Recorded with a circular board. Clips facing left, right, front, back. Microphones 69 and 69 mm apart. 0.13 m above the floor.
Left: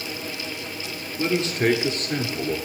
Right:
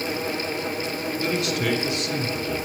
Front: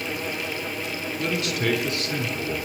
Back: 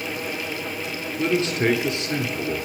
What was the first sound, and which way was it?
A man speaking, 140° left.